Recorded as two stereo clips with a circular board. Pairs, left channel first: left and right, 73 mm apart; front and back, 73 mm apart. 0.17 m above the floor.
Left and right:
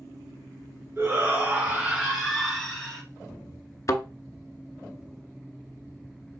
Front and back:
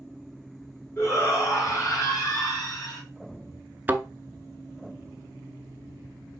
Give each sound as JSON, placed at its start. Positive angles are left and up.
{"t": 1.0, "sound": "a shout", "azimuth_deg": -40, "distance_m": 2.5}
{"t": 3.9, "sound": "a thud", "azimuth_deg": 120, "distance_m": 0.5}